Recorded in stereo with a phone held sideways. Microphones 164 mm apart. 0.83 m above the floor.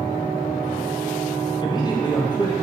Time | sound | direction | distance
1.6 | a man speaking | 25° left (ahead or behind) | 0.7 m